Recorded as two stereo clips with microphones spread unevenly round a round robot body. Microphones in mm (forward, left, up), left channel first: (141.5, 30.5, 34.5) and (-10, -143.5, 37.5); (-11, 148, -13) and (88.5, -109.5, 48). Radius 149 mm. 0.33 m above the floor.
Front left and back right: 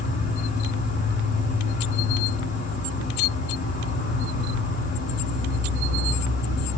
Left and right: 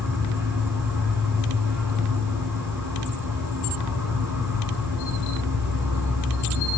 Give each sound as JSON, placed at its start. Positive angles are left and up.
{"t": 0.0, "sound": "an insect", "azimuth_deg": 25, "distance_m": 1.6}